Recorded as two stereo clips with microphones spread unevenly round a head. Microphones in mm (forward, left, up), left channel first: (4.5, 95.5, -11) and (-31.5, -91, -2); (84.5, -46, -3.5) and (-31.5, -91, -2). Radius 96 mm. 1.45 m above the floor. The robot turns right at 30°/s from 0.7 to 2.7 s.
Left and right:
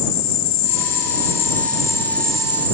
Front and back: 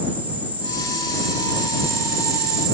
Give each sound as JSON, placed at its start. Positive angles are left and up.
{"t": 0.0, "sound": "an insect", "azimuth_deg": 120}